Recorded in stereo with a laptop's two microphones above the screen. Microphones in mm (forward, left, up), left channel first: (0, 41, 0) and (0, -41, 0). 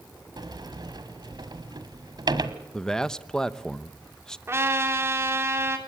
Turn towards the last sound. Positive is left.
turn(degrees=-30)  # may be behind; listen again after turning